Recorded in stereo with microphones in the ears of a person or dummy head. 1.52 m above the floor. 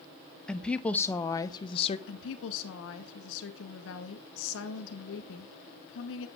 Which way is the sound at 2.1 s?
75° left (ahead or behind).